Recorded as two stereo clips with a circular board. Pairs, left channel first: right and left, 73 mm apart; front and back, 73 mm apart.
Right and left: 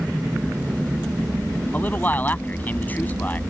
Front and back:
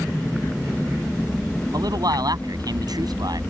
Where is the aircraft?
35° left; by 3.5 s 90° left.